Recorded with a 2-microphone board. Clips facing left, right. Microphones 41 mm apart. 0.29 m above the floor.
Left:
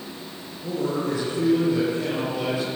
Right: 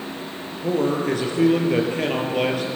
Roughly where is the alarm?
No alarm in this recording.